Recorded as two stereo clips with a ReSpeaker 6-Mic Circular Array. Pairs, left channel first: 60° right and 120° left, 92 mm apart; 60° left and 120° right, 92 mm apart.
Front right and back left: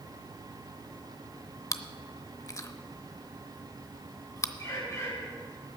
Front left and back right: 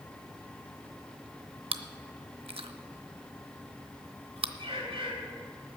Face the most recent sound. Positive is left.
turn(degrees=-115)